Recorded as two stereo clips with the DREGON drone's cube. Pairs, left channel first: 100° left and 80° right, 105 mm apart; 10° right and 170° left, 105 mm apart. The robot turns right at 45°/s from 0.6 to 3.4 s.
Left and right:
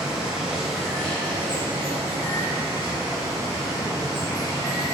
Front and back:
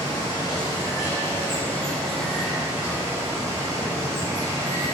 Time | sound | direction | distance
0.0 | running water | straight ahead | 1.2 m